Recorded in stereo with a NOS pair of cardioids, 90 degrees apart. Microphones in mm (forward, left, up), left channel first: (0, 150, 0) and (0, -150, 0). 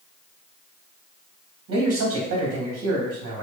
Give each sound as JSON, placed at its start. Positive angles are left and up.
{"t": 1.7, "sound": "a man speaking", "azimuth_deg": -55, "distance_m": 1.4}